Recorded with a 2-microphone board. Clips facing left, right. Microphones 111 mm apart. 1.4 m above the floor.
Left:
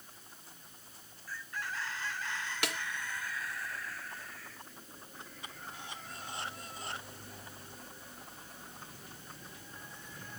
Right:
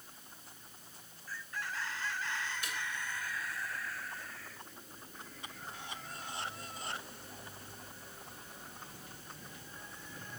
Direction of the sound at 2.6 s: 75° left (ahead or behind).